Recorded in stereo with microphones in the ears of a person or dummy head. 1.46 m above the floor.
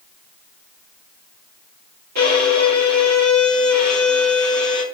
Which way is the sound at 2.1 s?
55° right (ahead or behind).